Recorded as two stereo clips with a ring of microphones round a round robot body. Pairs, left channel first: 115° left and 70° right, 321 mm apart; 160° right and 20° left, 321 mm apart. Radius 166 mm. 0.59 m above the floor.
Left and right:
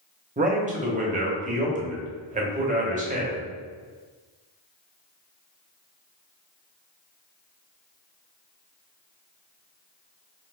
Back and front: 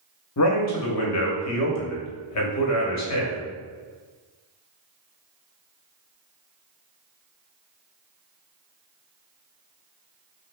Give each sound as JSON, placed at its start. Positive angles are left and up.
{"t": 0.4, "sound": "a man speaking", "azimuth_deg": -130, "distance_m": 1.0}